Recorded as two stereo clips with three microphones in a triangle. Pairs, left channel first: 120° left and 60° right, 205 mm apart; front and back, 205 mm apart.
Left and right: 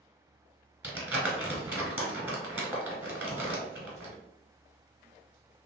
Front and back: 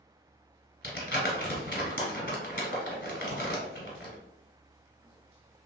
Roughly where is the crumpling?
Ahead.